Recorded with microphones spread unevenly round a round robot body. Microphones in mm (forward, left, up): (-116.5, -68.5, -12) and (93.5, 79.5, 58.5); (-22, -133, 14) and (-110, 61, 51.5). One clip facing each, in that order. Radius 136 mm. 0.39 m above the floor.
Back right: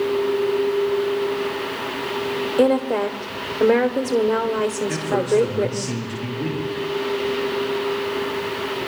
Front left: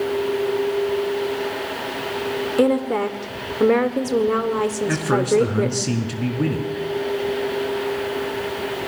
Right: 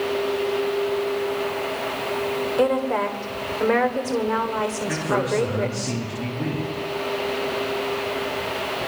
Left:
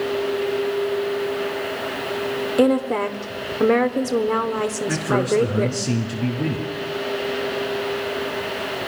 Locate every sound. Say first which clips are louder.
2.6 s a woman speaking: even, left 4 dB; 130° left, 1.5 m
4.9 s a man speaking: front left 3 dB, left 4 dB; 50° left, 5.5 m